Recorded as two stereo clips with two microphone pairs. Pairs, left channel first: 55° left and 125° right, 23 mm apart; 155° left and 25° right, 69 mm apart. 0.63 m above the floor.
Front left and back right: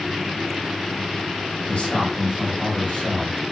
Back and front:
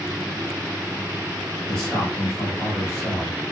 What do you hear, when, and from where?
1.7 s a man speaking: 70° left, 3.5 m